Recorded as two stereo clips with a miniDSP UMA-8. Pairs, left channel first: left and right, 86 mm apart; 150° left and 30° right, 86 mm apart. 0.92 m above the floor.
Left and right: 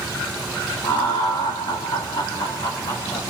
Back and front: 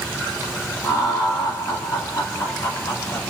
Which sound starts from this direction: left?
Laughter, at 0.8 s.